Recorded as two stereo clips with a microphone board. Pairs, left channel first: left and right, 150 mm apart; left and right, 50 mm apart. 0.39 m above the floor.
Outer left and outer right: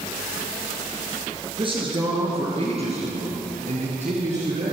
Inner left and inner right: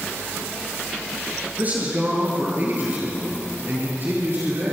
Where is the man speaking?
35° right (ahead or behind), 6.5 m; by 4.7 s 50° right (ahead or behind), 8 m.